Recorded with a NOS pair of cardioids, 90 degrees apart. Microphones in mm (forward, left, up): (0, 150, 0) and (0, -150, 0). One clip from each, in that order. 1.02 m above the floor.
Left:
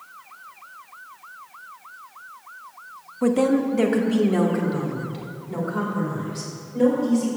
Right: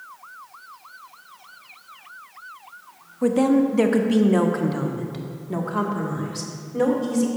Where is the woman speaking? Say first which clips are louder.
Right 1 dB; 10° left, 0.7 m; by 7.3 s 45° right, 2.5 m.